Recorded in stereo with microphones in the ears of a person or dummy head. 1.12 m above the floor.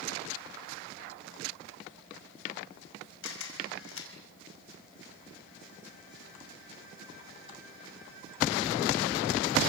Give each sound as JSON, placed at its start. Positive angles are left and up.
{"t": 3.2, "sound": "a camera shutter", "side_deg": 70, "distance_m": 5.0}